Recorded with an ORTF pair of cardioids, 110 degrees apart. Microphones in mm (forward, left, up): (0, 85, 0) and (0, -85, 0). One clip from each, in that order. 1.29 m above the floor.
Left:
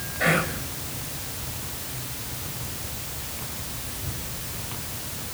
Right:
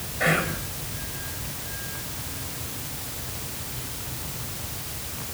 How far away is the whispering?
About 7.5 m.